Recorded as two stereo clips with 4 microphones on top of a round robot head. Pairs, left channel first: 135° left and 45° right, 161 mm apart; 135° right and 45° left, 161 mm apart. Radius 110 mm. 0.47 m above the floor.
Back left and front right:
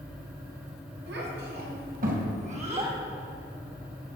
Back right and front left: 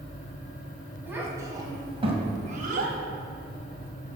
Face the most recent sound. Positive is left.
turn(degrees=15)